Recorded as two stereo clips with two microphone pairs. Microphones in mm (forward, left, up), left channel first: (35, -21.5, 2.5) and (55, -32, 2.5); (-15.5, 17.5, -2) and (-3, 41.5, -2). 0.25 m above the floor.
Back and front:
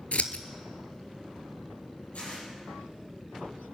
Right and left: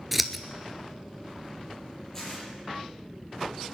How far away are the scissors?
About 0.7 m.